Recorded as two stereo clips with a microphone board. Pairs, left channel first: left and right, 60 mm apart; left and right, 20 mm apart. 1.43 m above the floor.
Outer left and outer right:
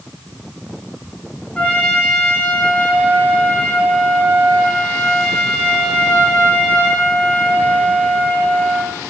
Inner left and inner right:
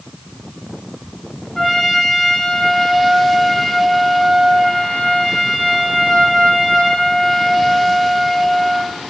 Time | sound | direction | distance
1.6 | a trumpet | 20° left (ahead or behind) | 4 m